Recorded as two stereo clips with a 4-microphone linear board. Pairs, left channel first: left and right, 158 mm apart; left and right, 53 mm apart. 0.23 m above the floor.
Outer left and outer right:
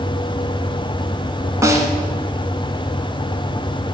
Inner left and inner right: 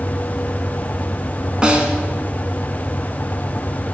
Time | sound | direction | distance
1.6 | a snare drum | 20° right (ahead or behind) | 1.3 m